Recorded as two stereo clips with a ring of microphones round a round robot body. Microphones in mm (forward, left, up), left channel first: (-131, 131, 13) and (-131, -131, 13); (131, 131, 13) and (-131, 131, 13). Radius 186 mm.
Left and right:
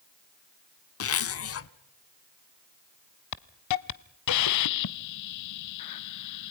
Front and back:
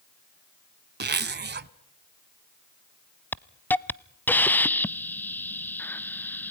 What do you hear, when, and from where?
1.0 s a zipper: 125° left, 1.0 m
3.3 s a hiss: 85° left, 0.6 m